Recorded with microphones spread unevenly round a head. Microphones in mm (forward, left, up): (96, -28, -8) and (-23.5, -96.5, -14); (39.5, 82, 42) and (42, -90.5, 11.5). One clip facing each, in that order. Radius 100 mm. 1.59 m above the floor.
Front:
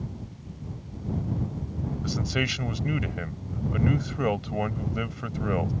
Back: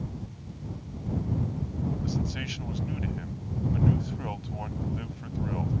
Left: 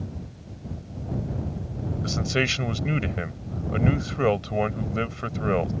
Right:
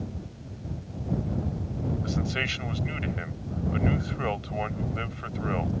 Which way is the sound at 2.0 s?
60° left.